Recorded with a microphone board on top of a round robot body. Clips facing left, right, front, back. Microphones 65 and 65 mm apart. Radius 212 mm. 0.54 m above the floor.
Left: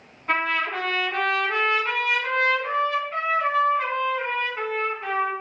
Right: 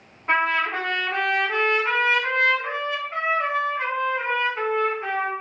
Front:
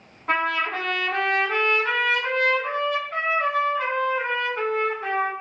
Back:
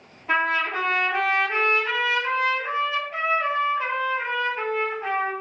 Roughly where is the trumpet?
Ahead right.